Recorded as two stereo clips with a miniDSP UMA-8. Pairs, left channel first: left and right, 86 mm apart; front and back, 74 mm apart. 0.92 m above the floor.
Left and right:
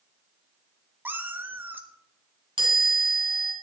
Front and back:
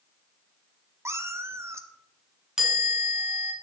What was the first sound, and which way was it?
A cat meowing, 145° right.